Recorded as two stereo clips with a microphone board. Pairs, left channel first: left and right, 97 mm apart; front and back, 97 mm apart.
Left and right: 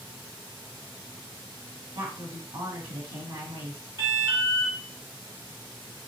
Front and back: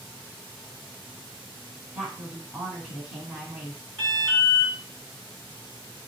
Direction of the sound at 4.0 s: 75° right.